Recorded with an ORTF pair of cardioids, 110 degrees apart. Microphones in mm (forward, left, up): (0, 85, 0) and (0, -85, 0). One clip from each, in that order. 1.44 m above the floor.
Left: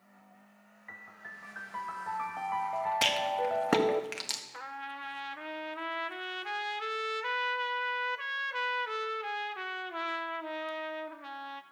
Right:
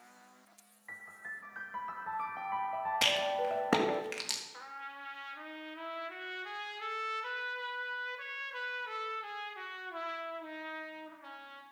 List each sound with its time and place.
0.9 s a piano: 10° left, 0.9 m
3.0 s a rattle: 10° left, 1.5 m
4.5 s a trumpet: 35° left, 0.8 m